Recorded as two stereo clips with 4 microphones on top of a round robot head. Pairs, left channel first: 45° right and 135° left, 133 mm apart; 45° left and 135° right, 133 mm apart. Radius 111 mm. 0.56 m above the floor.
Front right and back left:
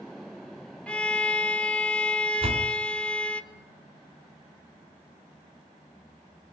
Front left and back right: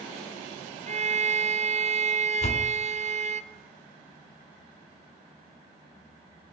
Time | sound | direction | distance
0.9 | a violin | 125° right | 2 m
2.4 | a door slam | 85° left | 4.5 m